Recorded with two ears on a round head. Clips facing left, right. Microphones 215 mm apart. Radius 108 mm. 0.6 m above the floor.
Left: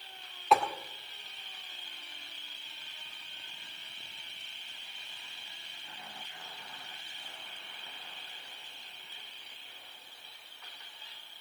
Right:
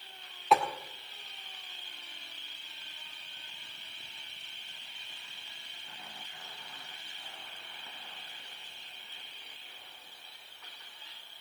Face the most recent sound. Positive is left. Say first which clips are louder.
# even
turn(degrees=0)  # may be behind; listen again after turning